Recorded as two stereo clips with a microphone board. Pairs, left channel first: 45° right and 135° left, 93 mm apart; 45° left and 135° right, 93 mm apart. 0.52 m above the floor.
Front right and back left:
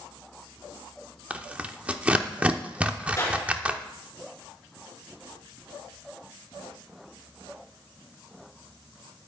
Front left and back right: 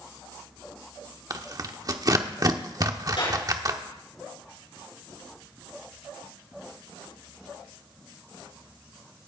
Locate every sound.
1.3 s tearing paper: 155° right, 0.9 m
3.2 s a clap: 20° left, 5.5 m